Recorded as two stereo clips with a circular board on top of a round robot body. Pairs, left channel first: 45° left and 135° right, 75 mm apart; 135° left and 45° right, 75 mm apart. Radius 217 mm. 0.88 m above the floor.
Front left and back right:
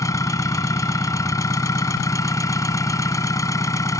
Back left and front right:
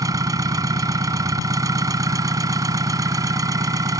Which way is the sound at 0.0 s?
5° right.